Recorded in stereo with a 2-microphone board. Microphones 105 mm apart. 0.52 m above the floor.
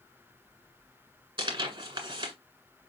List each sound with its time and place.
1.4 s tearing paper: 50° right (ahead or behind), 1.7 m